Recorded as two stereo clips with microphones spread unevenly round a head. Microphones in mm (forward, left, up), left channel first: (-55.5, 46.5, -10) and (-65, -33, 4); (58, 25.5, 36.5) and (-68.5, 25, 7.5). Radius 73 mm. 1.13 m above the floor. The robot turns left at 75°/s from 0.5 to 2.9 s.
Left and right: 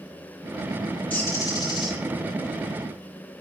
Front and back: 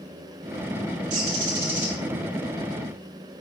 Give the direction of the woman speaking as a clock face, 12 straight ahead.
No woman speaking in this recording.